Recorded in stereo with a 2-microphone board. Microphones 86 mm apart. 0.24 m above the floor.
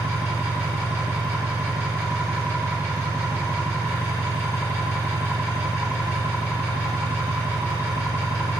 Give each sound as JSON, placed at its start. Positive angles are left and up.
{"t": 0.0, "sound": "an engine running", "side_deg": -25, "distance_m": 7.5}